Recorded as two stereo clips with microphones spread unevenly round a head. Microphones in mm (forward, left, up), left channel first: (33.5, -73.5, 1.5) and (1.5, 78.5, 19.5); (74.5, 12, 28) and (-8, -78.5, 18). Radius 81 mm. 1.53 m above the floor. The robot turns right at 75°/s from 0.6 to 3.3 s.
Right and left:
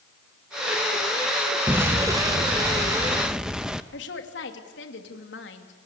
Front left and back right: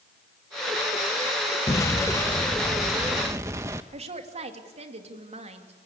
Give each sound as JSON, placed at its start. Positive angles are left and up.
{"t": 1.7, "sound": "an explosion", "azimuth_deg": 45, "distance_m": 0.7}
{"t": 3.9, "sound": "a woman speaking", "azimuth_deg": -100, "distance_m": 2.5}